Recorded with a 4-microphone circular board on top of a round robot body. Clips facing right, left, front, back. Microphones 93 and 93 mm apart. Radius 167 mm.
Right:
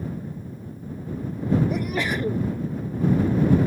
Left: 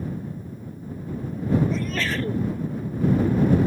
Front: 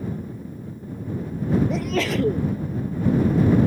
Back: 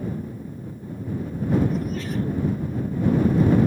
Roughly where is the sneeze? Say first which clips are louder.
Right 1 dB, front 4 dB; ahead.